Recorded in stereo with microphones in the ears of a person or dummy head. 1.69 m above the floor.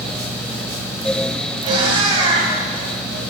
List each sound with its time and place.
1.6 s a cat meowing: 25° right (ahead or behind), 3 m